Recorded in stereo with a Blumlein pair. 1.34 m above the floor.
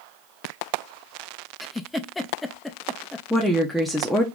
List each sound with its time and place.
1.6 s a giggle: 10° left, 0.6 m
3.3 s a woman speaking: 5° left, 0.8 m